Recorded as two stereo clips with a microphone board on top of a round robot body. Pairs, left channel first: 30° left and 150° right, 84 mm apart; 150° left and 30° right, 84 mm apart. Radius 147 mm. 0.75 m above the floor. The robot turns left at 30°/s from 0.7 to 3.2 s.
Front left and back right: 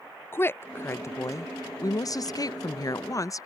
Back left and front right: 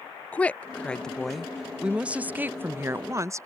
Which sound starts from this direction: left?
A woman speaking, at 0.3 s.